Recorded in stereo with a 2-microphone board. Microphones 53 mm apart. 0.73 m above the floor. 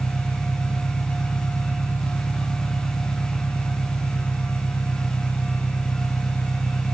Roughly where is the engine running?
Left.